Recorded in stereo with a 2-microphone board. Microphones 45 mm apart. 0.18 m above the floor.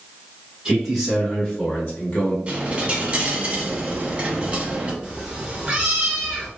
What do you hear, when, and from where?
0.7 s a man speaking: 10° right (ahead or behind), 1.3 m; by 2.4 s 40° left (ahead or behind), 1.4 m
2.5 s a dropped coin: 25° right (ahead or behind), 0.7 m
5.0 s a cat meowing: 20° right (ahead or behind), 0.9 m